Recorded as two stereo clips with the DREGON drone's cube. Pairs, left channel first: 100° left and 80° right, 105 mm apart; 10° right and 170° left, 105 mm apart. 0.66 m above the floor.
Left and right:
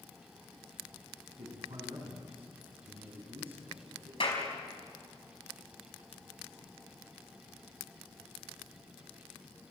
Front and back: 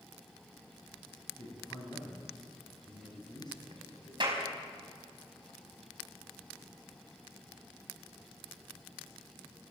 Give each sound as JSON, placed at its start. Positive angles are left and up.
{"t": 1.3, "sound": "a man speaking", "azimuth_deg": -55, "distance_m": 5.5}
{"t": 4.2, "sound": "a clap", "azimuth_deg": 125, "distance_m": 5.0}